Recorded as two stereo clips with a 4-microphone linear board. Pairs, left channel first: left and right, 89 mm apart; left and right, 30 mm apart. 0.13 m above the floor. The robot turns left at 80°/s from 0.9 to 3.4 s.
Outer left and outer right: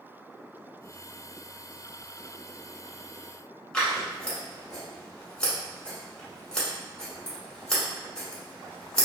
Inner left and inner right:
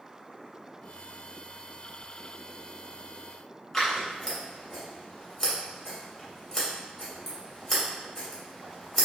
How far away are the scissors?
About 1.2 m.